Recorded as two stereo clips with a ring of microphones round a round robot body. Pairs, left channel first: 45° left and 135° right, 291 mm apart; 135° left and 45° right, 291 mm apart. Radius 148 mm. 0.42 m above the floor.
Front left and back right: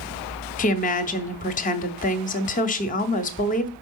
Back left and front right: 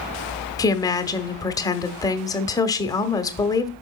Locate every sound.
0.6 s a woman speaking: 70° left, 0.9 m